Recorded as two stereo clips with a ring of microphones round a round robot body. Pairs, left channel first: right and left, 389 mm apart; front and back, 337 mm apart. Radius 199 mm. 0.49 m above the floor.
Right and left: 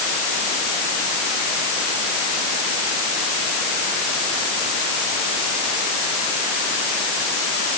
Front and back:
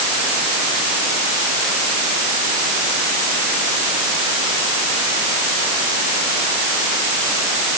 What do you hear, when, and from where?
Only background noise.